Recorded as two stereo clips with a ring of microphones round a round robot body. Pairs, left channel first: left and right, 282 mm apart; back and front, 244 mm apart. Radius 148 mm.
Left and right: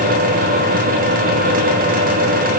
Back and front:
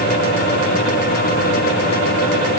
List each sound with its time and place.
Only background noise.